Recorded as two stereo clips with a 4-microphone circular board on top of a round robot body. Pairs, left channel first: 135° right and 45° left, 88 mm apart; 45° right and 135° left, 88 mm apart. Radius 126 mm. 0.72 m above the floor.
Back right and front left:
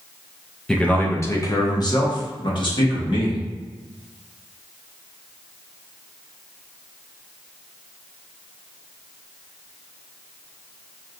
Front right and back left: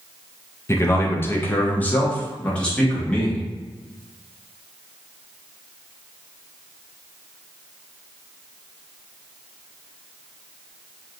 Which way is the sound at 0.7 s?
60° right.